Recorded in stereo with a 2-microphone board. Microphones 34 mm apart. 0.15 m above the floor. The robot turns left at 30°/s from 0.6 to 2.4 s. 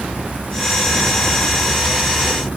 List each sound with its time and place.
Only background noise.